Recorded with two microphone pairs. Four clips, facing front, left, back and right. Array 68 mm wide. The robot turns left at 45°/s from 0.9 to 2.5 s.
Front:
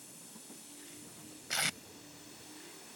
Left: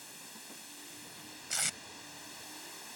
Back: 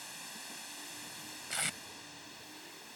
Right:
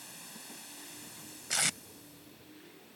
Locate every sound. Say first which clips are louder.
0.0 s running water: right 1 dB, back 7 dB; 175° right; by 3.0 s 110° left
1.5 s tape being pulled: right 5 dB, front 3 dB; 70° right; by 1.8 s 80° right